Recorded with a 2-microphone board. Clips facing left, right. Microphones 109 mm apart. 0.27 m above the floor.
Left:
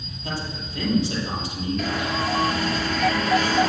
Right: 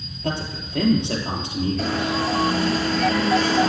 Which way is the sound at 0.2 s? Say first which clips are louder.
Right 4 dB; 65° right (ahead or behind).